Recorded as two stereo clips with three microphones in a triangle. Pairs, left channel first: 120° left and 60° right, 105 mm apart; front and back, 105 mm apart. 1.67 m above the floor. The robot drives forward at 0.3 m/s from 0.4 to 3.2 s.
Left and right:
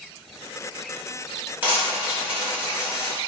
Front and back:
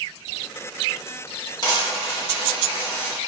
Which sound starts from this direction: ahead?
A dropped coin, at 1.6 s.